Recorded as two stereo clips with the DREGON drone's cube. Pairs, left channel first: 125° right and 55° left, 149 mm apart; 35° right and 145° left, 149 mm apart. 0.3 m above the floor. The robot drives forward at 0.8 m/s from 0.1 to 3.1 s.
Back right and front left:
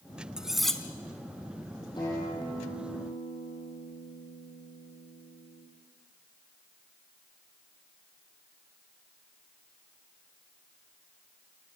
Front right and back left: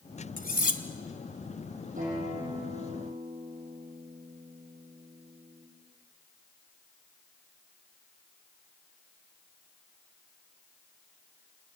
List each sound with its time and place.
0.4 s cutlery clinking: 30° right, 1.2 m; by 0.8 s 40° right, 1.0 m
2.0 s a guitar: 175° left, 8 m